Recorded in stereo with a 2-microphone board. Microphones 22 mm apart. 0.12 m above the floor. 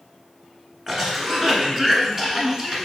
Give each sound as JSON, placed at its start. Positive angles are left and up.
{"t": 0.9, "sound": "a cough", "side_deg": -20, "distance_m": 1.1}